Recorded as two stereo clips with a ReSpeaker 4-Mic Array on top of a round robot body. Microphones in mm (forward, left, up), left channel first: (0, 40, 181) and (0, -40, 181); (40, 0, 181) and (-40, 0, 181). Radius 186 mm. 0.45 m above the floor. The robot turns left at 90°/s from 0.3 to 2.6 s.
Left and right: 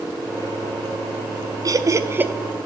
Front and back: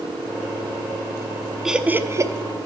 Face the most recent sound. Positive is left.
turn(degrees=180)